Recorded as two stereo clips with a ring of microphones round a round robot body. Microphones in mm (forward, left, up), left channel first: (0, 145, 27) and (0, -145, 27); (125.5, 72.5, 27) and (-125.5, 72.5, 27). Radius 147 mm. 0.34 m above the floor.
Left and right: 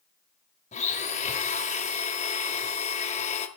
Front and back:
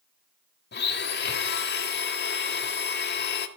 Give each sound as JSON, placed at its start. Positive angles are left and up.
{"t": 0.7, "sound": "a blender", "azimuth_deg": 30, "distance_m": 1.4}